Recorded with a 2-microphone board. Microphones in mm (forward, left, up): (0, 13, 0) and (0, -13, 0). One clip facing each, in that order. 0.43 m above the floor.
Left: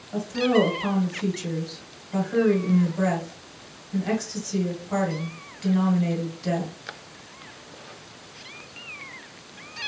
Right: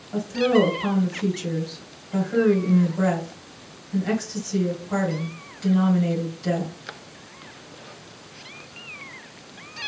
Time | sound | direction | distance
0.1 | a woman speaking | 5° left (ahead or behind) | 1.4 m